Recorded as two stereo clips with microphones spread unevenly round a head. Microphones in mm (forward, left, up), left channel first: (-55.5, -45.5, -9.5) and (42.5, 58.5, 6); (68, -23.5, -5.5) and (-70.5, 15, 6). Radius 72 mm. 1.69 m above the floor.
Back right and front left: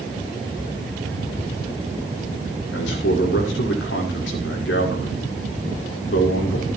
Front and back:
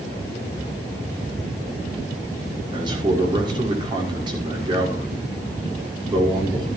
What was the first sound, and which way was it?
A man speaking, 135° right.